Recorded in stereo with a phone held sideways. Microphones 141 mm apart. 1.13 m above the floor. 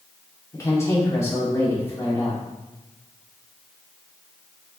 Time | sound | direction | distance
0.5 | a woman speaking | 20° left (ahead or behind) | 3 m